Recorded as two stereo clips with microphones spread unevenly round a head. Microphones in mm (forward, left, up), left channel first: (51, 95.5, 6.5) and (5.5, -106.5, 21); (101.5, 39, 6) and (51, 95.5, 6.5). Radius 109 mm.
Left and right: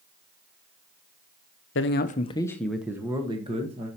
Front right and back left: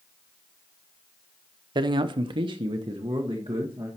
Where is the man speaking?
115° left, 0.8 m; by 3.9 s 165° right, 1.7 m.